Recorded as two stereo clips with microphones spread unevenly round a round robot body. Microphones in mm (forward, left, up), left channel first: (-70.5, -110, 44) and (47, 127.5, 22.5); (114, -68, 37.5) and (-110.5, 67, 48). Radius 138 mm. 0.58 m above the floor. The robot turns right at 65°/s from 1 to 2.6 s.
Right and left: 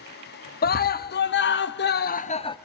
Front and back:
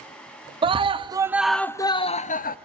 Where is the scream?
150° right, 0.8 m; by 2.6 s 50° right, 0.8 m.